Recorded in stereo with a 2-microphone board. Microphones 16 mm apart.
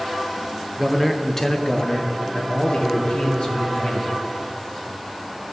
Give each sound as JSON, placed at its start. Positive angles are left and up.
{"t": 0.8, "sound": "a man speaking", "side_deg": -5, "distance_m": 0.8}